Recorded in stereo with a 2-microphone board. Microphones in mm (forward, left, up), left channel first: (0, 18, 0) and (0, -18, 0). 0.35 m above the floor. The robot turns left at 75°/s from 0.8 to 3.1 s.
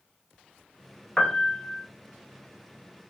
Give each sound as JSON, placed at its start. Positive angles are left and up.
{"t": 1.2, "sound": "a piano", "azimuth_deg": 160, "distance_m": 0.6}